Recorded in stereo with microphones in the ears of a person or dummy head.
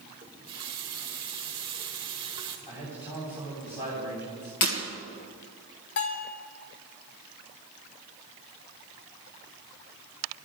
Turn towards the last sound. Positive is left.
turn(degrees=60)  # may be behind; listen again after turning